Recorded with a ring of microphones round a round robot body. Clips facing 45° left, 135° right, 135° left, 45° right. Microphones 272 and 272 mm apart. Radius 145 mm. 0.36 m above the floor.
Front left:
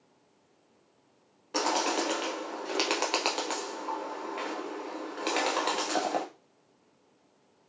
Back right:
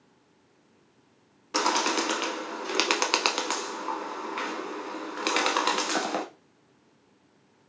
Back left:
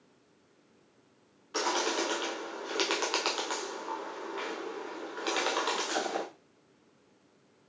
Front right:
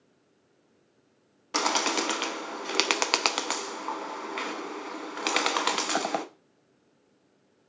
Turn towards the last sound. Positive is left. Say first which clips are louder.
# back right 1 dB, front right 2 dB
turn(degrees=-70)